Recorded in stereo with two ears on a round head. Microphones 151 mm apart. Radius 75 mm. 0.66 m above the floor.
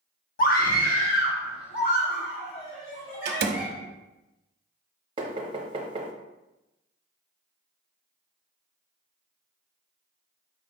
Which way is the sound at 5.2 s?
30° right (ahead or behind).